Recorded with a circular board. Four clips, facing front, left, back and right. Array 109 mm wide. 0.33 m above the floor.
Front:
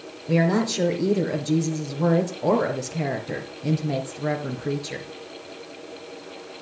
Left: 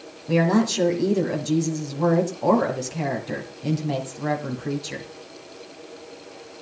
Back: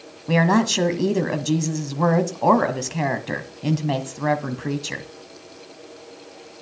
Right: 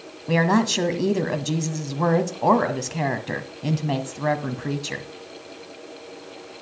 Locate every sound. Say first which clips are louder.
0.3 s a woman speaking: even, back 3 dB; 150° right, 1.9 m